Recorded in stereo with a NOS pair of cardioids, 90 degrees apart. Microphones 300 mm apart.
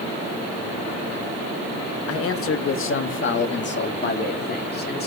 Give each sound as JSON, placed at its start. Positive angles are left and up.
{"t": 2.1, "sound": "a man speaking", "azimuth_deg": 55, "distance_m": 1.4}